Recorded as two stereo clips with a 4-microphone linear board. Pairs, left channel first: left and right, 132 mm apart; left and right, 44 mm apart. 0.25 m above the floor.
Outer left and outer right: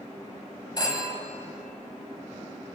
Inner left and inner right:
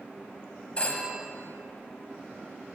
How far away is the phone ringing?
About 1.1 m.